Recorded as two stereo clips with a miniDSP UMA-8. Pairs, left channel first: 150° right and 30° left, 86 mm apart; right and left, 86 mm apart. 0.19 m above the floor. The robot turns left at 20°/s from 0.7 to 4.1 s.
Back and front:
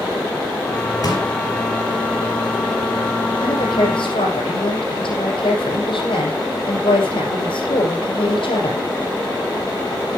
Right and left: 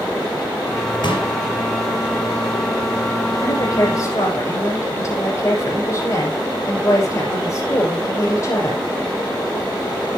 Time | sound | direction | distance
1.0 | a pop | 110° right | 4.5 m
3.4 | a woman speaking | 130° right | 6.5 m